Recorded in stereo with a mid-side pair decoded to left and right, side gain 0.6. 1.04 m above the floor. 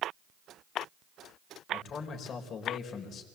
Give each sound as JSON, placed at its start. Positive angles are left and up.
{"t": 1.7, "sound": "a man speaking", "azimuth_deg": 45, "distance_m": 4.5}